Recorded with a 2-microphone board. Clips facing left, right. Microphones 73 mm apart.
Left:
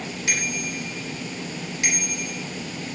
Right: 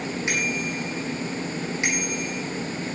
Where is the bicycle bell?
25° right (ahead or behind), 10 m.